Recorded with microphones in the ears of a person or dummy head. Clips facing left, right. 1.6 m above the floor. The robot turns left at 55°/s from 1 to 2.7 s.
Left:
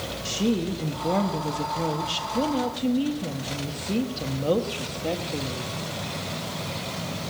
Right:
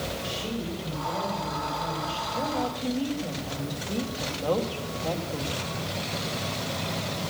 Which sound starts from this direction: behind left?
A woman speaking, at 0.2 s.